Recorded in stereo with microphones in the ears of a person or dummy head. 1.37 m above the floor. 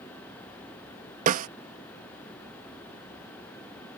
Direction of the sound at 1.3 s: 45° right (ahead or behind).